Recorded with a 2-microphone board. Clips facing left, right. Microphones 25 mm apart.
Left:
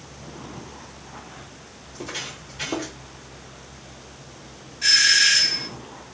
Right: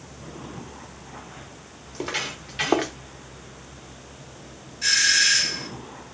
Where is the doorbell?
10° left (ahead or behind), 1.6 m.